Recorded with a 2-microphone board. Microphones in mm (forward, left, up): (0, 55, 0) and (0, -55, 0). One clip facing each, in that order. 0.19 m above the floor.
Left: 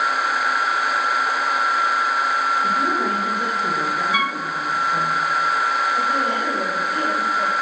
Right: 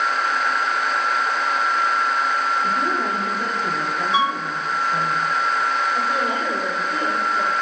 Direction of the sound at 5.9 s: 15° right (ahead or behind).